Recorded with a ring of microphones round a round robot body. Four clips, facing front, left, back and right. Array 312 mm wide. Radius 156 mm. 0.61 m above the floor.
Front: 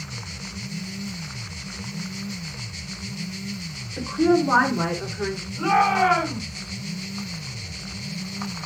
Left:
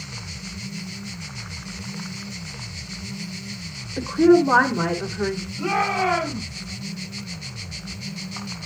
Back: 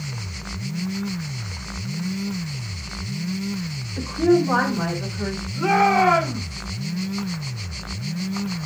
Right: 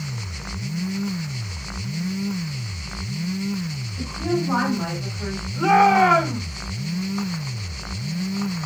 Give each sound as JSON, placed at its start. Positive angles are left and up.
{"t": 4.0, "sound": "a woman speaking", "azimuth_deg": 85, "distance_m": 3.0}
{"t": 5.6, "sound": "a shout", "azimuth_deg": -95, "distance_m": 4.5}